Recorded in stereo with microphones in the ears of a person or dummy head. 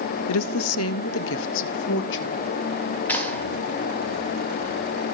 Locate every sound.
0.3 s a woman speaking: 70° left (ahead or behind), 0.6 m; by 2.5 s 60° left (ahead or behind), 2 m
3.1 s a clap: 10° left (ahead or behind), 5.5 m